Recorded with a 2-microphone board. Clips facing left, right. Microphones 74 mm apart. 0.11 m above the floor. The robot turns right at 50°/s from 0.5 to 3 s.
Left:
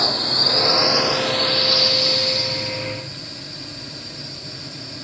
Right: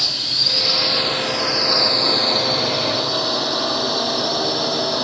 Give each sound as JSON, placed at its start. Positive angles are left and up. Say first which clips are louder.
{"t": 0.0, "sound": "a drone", "louder": "left 7 dB", "azimuth_deg": 145}